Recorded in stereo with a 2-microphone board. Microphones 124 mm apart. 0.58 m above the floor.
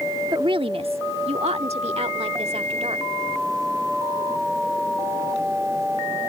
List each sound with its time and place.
0.3 s a woman speaking: 35° right (ahead or behind); by 3.1 s 55° right (ahead or behind)